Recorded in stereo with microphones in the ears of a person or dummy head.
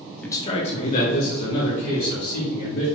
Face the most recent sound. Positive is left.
turn(degrees=60)  # may be behind; listen again after turning